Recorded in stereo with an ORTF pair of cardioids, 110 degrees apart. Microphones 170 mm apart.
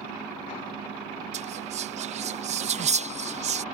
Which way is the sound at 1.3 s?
45° right.